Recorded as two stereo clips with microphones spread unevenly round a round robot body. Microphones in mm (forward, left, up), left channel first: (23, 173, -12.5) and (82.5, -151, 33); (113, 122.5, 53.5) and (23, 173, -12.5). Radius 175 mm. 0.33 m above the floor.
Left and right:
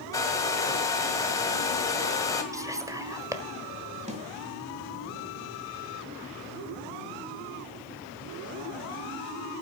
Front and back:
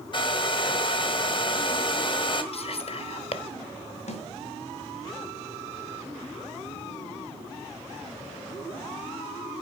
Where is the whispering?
5° left, 1.2 m.